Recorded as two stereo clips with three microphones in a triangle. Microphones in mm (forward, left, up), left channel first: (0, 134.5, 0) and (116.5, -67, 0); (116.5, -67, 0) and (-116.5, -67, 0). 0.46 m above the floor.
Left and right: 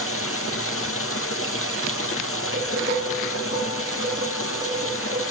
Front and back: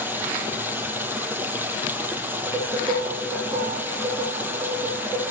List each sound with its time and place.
0.0 s running water: 100° left, 2.5 m
2.5 s dishes clattering: 110° right, 10 m